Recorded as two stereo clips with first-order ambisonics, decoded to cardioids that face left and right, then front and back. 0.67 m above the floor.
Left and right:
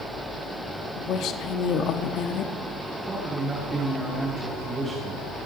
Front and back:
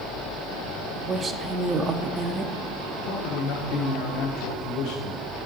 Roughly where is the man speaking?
Ahead.